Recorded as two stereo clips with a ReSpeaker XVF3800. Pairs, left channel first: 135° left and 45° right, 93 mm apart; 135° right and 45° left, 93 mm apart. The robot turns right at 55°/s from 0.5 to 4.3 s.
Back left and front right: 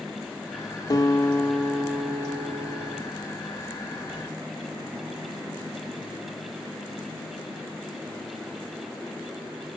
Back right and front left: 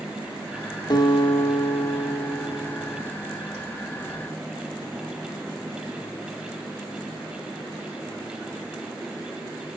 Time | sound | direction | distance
0.9 | a guitar | 175° right | 1.4 m